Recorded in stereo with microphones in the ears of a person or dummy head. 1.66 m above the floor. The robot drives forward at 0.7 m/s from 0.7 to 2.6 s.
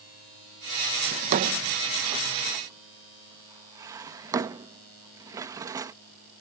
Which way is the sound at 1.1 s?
40° right (ahead or behind).